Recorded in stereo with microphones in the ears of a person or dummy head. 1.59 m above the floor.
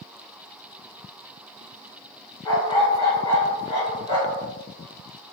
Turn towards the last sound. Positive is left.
turn(degrees=35)  # may be behind; listen again after turning